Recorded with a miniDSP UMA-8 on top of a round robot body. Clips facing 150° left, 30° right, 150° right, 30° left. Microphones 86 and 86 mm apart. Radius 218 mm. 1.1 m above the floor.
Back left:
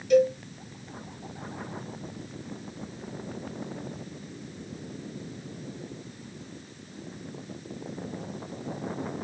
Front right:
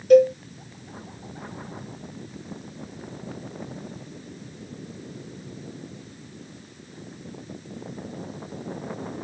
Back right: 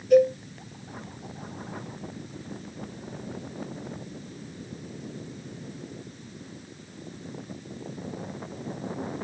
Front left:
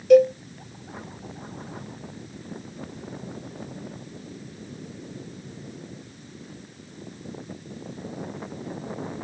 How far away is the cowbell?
About 0.8 m.